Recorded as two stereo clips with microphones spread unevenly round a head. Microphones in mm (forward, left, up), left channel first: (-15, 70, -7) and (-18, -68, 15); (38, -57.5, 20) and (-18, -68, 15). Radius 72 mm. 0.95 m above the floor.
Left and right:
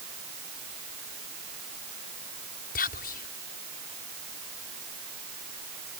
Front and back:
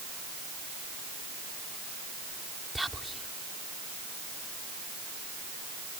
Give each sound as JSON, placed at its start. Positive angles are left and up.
{"t": 2.8, "sound": "whispering", "azimuth_deg": 100}